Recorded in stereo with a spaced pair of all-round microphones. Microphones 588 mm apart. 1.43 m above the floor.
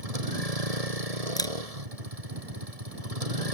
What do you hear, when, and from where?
0.0 s a vehicle: 80° right
1.4 s a camera shutter: 5° left (ahead or behind)